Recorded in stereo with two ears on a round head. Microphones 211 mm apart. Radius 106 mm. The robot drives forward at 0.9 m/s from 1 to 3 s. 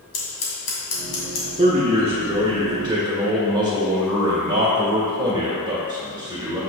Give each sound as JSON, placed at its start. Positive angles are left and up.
{"t": 0.1, "sound": "scissors", "side_deg": 70, "distance_m": 2.0}
{"t": 1.6, "sound": "a man speaking", "side_deg": -30, "distance_m": 0.9}